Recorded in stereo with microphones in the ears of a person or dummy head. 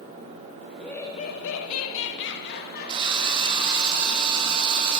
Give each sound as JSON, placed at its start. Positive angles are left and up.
{"t": 0.7, "sound": "laughter", "side_deg": 0, "distance_m": 0.9}
{"t": 2.9, "sound": "a drill", "side_deg": -25, "distance_m": 2.0}